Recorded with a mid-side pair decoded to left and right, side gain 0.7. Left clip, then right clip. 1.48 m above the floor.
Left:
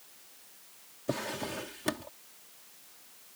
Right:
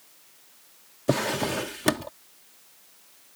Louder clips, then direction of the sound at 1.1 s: Right 9 dB; 40° right.